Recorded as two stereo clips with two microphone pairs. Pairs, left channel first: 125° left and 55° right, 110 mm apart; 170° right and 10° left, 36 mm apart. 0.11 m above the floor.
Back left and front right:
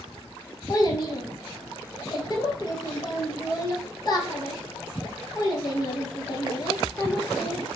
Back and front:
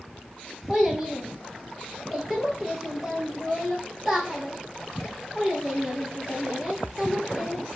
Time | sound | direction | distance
0.7 | a child speaking | 90° left | 1.7 m